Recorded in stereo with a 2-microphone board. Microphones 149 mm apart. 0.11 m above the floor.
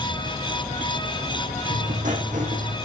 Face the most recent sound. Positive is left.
turn(degrees=-60)  # may be behind; listen again after turning